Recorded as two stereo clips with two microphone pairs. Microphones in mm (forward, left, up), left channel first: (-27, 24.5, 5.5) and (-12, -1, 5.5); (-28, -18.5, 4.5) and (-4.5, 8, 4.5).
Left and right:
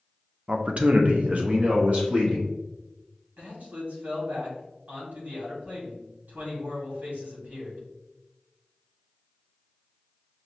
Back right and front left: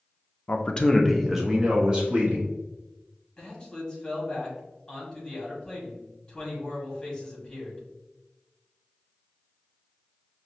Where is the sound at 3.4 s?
60° right, 2 m.